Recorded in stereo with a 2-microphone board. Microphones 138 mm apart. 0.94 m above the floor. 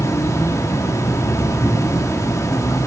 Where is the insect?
20° left (ahead or behind), 0.8 m.